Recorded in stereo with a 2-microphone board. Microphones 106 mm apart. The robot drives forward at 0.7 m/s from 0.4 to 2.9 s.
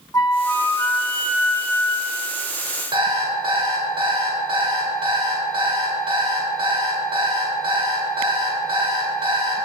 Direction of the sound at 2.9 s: 50° right (ahead or behind).